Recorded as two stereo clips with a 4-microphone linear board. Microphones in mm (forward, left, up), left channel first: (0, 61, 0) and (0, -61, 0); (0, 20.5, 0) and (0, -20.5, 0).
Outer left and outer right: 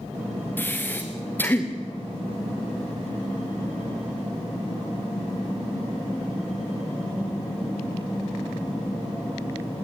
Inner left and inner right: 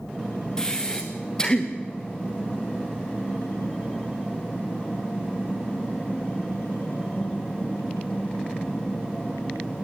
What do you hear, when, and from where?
0.6 s breathing: 15° left (ahead or behind), 3 m